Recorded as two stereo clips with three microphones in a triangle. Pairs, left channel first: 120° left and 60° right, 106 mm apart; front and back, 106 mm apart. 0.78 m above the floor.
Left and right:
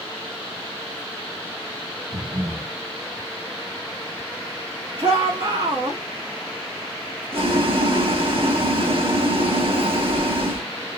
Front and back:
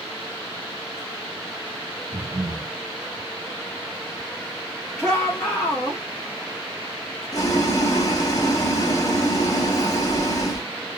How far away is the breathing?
About 2 m.